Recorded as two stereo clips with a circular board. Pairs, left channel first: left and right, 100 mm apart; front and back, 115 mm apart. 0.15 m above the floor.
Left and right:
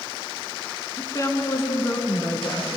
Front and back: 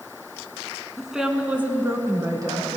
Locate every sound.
1.0 s a woman speaking: 90° left, 1.5 m; by 2.8 s 145° left, 1.9 m